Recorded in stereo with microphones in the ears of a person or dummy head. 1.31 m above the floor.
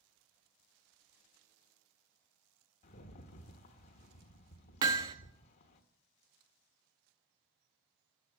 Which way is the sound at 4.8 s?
25° right (ahead or behind).